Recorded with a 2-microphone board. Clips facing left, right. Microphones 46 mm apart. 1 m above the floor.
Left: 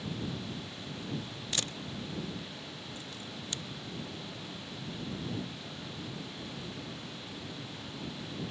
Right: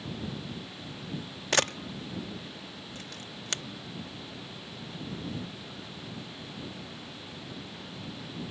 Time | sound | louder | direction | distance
1.5 | a camera shutter | right 10 dB | 80° right | ?